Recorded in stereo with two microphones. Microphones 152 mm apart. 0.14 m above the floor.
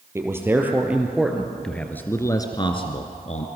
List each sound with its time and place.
0.1 s a man speaking: 15° right (ahead or behind), 3 m; by 3.5 s 50° left (ahead or behind), 1.9 m